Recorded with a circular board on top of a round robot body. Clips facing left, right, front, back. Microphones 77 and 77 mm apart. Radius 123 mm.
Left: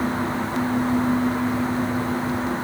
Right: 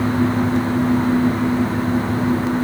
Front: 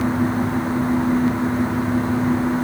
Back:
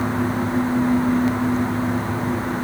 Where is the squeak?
I don't hear a squeak.